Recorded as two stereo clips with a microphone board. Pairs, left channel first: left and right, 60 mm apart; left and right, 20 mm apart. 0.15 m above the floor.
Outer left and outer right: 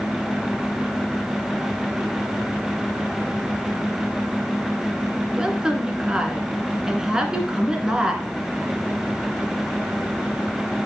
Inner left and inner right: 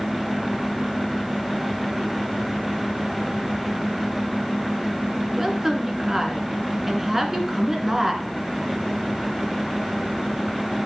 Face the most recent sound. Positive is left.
turn(degrees=-15)  # may be behind; listen again after turning